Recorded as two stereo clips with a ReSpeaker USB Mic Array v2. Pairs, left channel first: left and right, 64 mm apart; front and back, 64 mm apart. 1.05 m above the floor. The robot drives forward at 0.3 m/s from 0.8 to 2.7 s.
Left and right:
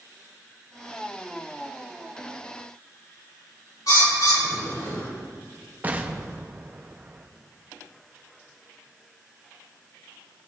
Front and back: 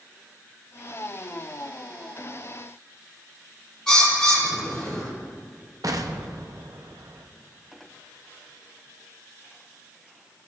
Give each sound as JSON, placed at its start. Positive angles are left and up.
{"t": 3.9, "sound": "a bird", "azimuth_deg": 80, "distance_m": 3.0}
{"t": 5.8, "sound": "an explosion", "azimuth_deg": -155, "distance_m": 0.6}